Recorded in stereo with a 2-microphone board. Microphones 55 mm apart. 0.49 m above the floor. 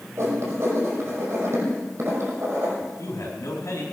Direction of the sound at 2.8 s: 75° left (ahead or behind).